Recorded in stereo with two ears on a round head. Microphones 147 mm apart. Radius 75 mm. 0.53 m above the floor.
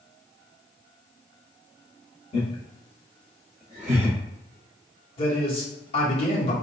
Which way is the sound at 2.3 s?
35° left (ahead or behind).